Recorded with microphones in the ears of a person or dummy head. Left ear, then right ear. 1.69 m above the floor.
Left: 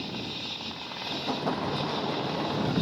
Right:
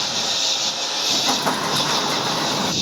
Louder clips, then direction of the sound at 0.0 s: Right 14 dB; 70° right (ahead or behind).